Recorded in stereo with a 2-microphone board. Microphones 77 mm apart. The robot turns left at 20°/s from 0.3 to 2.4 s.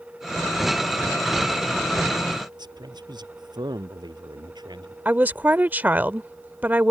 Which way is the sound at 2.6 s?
80° right.